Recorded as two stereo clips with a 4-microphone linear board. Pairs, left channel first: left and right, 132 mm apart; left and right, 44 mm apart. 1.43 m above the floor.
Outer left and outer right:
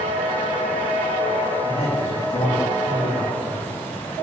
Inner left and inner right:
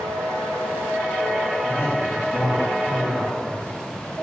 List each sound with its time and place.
1.6 s a man speaking: 55° left (ahead or behind), 3 m; by 3.7 s 50° left (ahead or behind), 4 m